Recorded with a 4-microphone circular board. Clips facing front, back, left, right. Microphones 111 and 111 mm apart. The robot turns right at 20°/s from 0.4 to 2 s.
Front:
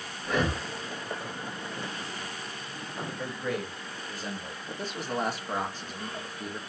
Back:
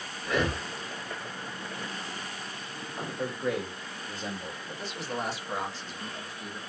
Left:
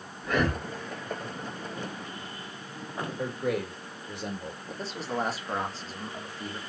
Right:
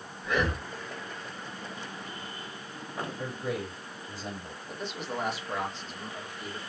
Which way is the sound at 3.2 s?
115° left.